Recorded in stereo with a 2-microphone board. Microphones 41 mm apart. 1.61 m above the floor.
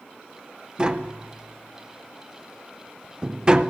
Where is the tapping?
20° right (ahead or behind), 0.8 m.